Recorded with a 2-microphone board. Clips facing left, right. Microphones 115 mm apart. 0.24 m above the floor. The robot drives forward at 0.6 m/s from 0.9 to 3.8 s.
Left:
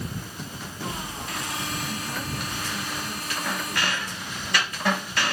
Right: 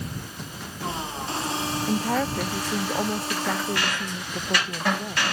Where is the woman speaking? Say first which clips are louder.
Right 8 dB; 80° right.